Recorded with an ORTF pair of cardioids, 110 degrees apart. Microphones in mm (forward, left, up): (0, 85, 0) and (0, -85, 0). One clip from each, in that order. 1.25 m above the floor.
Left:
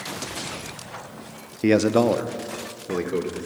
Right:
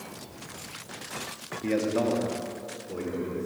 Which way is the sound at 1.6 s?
55° left.